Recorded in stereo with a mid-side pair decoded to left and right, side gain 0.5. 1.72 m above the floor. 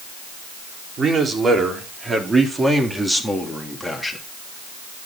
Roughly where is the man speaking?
Ahead right.